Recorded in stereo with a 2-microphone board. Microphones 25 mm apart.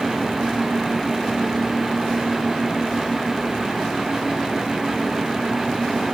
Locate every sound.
Only background noise.